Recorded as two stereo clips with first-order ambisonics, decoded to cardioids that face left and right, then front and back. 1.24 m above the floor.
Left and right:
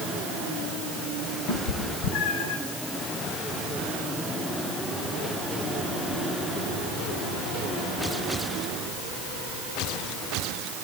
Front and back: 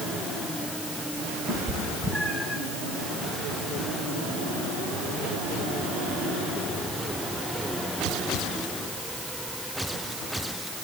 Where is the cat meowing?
110° left, 2.5 m; by 2.6 s 85° left, 2.5 m.